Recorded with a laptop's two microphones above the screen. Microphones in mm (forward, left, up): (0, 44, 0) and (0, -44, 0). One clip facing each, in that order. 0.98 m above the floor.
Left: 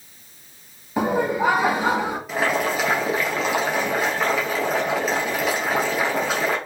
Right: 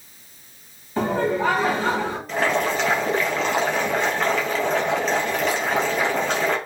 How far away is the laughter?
About 1.9 m.